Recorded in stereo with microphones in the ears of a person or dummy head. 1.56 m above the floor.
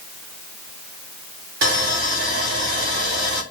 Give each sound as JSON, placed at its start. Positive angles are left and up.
{"t": 1.6, "sound": "sawing", "side_deg": -85, "distance_m": 1.6}